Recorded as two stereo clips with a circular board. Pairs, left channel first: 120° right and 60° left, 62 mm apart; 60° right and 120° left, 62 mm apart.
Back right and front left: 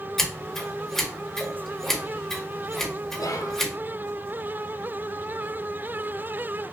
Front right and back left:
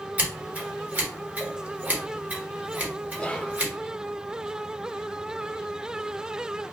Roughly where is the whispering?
Behind right.